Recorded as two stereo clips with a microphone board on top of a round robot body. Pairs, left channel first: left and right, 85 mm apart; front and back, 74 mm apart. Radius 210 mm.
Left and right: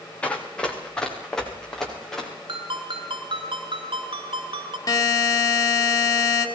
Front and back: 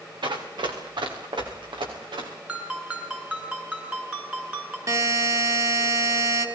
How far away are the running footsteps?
About 3.5 m.